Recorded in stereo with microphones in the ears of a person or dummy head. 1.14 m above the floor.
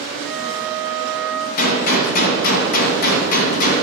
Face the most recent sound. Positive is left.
turn(degrees=55)  # may be behind; listen again after turning